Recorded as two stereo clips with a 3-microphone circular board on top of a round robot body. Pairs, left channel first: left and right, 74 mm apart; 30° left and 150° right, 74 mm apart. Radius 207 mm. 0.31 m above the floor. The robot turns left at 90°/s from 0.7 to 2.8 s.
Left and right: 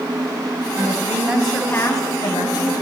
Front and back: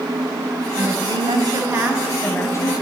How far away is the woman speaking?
About 4 m.